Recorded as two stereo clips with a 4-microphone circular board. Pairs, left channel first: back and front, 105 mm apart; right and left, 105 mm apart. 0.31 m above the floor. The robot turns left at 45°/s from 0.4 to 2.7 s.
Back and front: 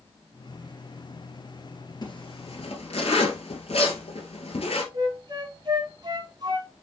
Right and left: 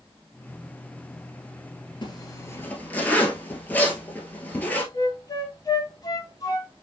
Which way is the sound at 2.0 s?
135° right.